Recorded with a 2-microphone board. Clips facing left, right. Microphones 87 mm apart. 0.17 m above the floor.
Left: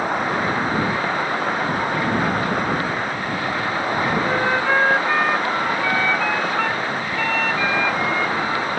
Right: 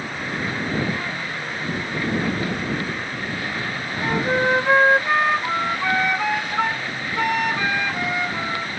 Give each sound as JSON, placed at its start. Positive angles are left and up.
{"t": 0.0, "sound": "an insect", "side_deg": 55}
{"t": 4.0, "sound": "a flute", "side_deg": -20}